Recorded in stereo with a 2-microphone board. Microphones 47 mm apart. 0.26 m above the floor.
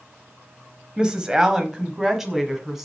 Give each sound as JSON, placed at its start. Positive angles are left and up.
{"t": 1.0, "sound": "a woman speaking", "side_deg": -20, "distance_m": 1.0}